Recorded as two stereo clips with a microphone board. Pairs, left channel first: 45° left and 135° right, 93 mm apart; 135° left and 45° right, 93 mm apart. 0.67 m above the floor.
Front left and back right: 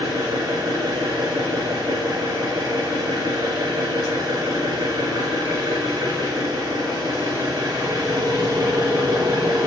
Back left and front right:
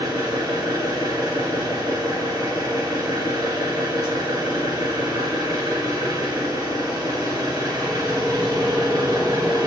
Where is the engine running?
95° right, 3 m.